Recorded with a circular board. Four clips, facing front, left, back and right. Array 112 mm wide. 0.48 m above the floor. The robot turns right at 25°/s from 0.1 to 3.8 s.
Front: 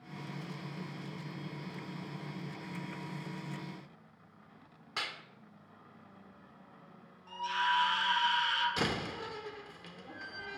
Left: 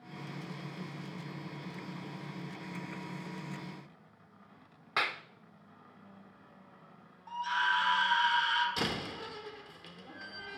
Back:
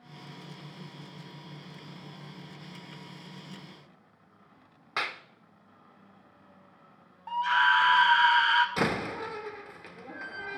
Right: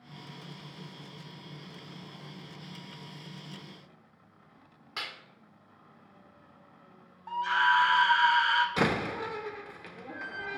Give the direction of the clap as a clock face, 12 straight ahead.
8 o'clock.